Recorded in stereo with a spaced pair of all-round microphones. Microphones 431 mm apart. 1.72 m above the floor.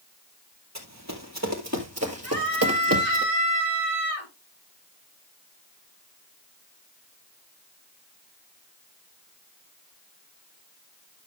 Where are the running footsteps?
40° right (ahead or behind), 2.5 m; by 3.2 s 30° right (ahead or behind), 1.9 m.